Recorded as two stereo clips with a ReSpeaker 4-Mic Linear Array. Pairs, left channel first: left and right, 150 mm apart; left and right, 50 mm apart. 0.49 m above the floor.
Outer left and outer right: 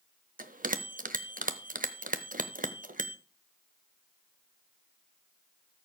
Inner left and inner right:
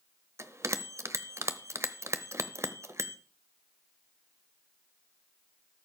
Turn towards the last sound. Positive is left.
turn(degrees=-60)  # may be behind; listen again after turning